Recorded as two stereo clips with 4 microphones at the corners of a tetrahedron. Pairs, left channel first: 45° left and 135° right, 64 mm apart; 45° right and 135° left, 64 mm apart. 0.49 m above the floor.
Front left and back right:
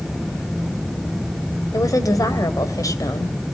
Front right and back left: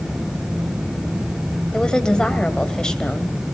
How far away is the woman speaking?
About 2.5 m.